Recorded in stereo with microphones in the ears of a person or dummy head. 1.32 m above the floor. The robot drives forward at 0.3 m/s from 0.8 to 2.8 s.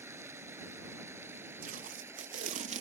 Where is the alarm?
I don't hear an alarm.